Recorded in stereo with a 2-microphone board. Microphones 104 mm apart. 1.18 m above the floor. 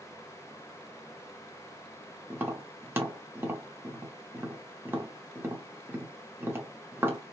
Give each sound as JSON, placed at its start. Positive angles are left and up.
{"t": 2.3, "sound": "tapping", "side_deg": -20, "distance_m": 1.0}